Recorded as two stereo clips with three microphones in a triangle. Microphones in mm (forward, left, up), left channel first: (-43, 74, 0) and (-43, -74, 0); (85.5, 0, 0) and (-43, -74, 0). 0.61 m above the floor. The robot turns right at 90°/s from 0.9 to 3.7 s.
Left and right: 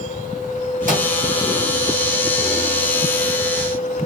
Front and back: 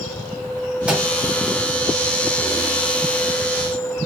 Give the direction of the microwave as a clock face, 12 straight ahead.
2 o'clock.